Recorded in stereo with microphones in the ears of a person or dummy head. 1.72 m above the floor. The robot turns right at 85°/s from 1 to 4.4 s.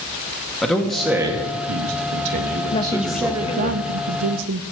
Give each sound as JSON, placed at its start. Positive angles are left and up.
{"t": 0.6, "sound": "a man speaking", "azimuth_deg": 180, "distance_m": 1.4}
{"t": 2.7, "sound": "a woman speaking", "azimuth_deg": 145, "distance_m": 0.7}